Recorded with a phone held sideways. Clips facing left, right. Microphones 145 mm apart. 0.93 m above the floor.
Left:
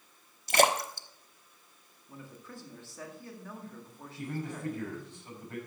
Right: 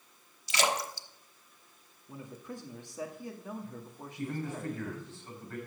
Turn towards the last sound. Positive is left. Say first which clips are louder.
# right 1 dB
turn(degrees=15)  # may be behind; listen again after turning